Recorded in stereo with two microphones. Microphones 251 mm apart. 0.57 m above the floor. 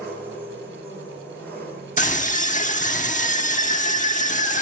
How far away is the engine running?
About 6.5 m.